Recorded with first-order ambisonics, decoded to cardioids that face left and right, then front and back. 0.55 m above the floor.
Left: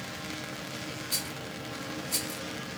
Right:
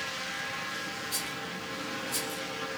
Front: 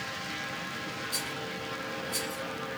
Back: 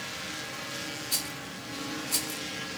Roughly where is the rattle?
Behind.